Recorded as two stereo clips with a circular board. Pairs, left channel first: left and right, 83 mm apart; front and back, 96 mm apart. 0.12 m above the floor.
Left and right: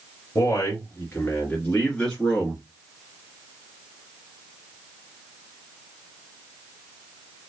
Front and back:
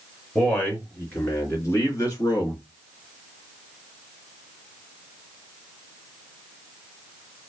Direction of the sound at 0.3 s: 65° left.